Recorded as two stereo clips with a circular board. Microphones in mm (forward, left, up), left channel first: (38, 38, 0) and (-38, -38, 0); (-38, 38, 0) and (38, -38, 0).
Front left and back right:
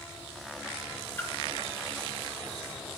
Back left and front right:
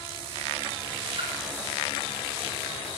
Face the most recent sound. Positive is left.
turn(degrees=-20)